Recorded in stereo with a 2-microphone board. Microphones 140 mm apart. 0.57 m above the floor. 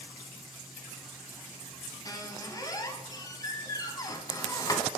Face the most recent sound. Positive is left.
turn(degrees=25)  # may be behind; listen again after turning